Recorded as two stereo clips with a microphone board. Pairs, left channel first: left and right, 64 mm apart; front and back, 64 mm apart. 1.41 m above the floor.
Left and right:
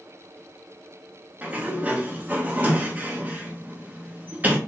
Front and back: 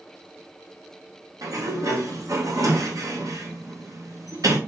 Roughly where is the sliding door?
Behind right.